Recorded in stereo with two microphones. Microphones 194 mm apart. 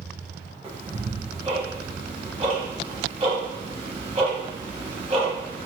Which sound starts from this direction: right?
Ticking, at 0.6 s.